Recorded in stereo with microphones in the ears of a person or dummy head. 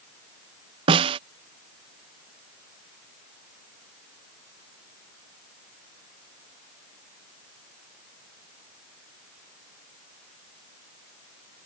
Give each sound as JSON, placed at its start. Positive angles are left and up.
{"t": 0.9, "sound": "a snare drum", "side_deg": -30}